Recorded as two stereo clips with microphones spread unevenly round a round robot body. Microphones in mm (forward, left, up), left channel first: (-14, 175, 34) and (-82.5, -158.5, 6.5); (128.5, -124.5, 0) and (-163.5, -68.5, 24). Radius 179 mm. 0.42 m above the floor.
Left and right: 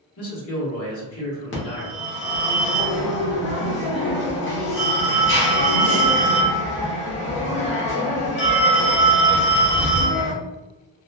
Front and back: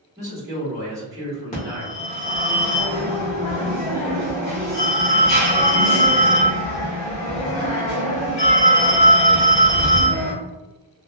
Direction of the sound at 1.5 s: 35° left.